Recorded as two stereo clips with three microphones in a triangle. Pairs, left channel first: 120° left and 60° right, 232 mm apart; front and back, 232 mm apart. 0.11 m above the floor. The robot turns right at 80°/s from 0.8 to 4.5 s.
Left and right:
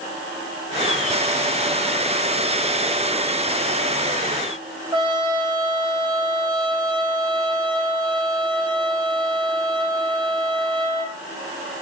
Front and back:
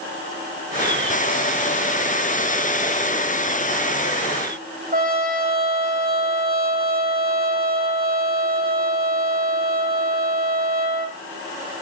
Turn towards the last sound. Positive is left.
turn(degrees=-130)